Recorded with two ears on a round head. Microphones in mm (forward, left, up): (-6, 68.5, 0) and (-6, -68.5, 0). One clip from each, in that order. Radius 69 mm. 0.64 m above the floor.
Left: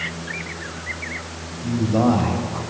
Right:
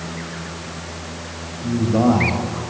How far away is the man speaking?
About 4 m.